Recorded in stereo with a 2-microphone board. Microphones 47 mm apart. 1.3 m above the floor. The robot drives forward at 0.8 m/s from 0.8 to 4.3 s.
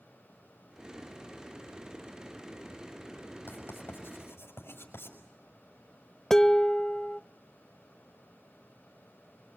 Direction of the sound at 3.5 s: 50° left (ahead or behind).